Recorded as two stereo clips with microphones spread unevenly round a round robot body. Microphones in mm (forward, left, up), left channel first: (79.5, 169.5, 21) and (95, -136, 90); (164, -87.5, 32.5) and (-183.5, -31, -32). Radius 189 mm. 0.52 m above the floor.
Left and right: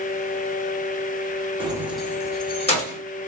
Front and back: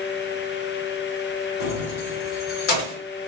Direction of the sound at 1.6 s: 10° right.